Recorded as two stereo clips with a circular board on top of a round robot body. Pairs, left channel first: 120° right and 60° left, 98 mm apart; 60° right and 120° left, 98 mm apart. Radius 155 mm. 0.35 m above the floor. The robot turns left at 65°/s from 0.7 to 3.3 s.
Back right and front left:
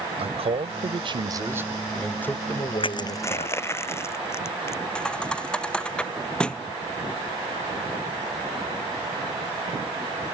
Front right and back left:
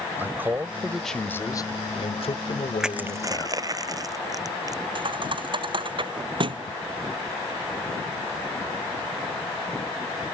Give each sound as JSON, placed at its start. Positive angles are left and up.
{"t": 0.2, "sound": "a man speaking", "azimuth_deg": 50}
{"t": 2.8, "sound": "crushing", "azimuth_deg": -155}
{"t": 5.0, "sound": "a thud", "azimuth_deg": 160}